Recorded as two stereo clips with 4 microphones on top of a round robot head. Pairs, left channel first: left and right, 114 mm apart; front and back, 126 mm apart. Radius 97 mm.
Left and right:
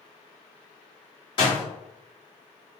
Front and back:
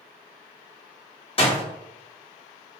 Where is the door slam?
40° left, 1.3 m.